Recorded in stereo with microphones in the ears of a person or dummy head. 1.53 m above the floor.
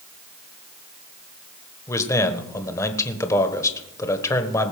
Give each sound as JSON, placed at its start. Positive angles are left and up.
{"t": 1.9, "sound": "a man speaking", "side_deg": 15, "distance_m": 1.1}